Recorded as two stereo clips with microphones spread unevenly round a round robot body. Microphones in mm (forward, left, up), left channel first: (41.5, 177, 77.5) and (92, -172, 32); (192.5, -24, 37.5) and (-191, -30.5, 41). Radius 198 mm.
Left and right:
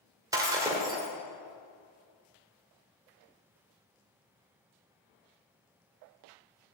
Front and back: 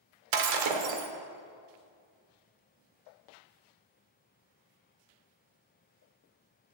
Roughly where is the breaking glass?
Behind.